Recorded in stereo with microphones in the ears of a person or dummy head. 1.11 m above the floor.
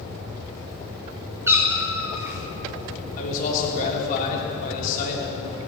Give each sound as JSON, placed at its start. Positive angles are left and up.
{"t": 1.5, "sound": "a cat meowing", "side_deg": -10, "distance_m": 0.9}
{"t": 3.2, "sound": "a man speaking", "side_deg": 50, "distance_m": 3.0}